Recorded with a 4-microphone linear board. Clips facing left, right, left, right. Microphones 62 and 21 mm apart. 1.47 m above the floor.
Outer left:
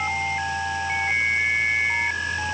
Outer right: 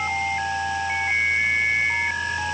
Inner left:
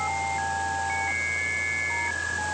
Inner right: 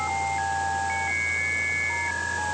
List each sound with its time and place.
Only background noise.